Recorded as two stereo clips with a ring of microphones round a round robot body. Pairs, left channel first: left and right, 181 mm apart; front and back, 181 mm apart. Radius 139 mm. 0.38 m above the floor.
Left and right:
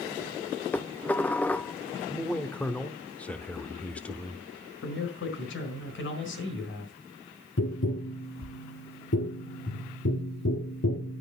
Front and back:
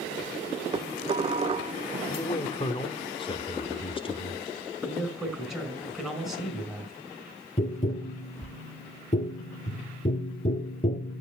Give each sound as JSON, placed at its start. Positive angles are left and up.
{"t": 0.7, "sound": "dishes clattering", "azimuth_deg": 165, "distance_m": 0.8}
{"t": 2.1, "sound": "a man speaking", "azimuth_deg": 15, "distance_m": 0.9}
{"t": 4.8, "sound": "a man speaking", "azimuth_deg": 90, "distance_m": 4.0}
{"t": 7.6, "sound": "tapping", "azimuth_deg": 55, "distance_m": 2.0}